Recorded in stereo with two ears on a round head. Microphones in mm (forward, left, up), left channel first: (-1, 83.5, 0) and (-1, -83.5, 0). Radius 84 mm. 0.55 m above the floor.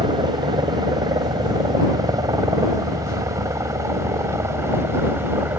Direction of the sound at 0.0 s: 25° right (ahead or behind).